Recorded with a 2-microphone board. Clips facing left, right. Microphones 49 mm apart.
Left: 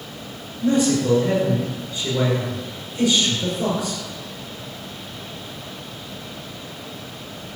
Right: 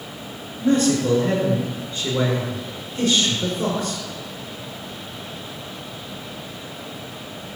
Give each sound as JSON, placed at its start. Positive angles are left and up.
{"t": 0.6, "sound": "a man speaking", "side_deg": -45, "distance_m": 7.5}